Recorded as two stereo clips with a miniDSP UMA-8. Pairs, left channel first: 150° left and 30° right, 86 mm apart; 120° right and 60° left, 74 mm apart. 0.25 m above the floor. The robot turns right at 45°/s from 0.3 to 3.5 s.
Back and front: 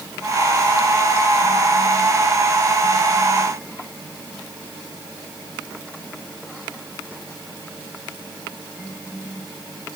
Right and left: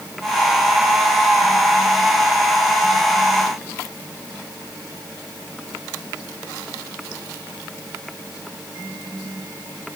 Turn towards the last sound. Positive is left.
No sound to turn to.